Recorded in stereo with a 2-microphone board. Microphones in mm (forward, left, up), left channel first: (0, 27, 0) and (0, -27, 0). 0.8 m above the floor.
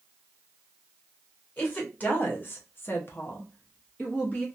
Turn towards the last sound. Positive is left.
turn(degrees=20)  # may be behind; listen again after turning